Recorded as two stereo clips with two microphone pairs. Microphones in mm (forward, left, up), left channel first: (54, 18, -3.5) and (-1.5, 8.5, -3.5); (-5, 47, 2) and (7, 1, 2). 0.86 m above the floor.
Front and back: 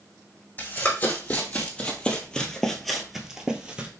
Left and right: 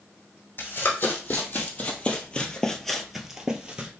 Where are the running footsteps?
65° left, 1.7 m; by 3.9 s 120° right, 0.9 m.